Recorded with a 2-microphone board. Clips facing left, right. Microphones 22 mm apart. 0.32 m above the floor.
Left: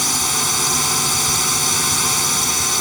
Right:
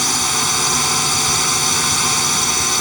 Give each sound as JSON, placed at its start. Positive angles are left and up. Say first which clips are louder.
{"t": 0.0, "sound": "a drone", "louder": "right 2 dB", "side_deg": -10}